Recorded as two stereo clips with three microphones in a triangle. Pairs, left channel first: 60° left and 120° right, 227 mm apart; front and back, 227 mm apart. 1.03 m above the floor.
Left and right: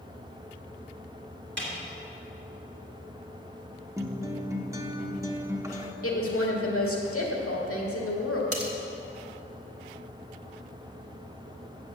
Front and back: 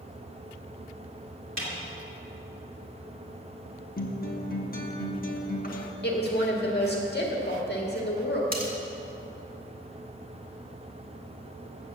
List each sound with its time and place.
1.6 s a snare drum: 155° right, 2.5 m
4.0 s a guitar: 45° right, 1.0 m
6.0 s a woman speaking: 45° left, 1.9 m
8.5 s cutlery clinking: 130° right, 1.6 m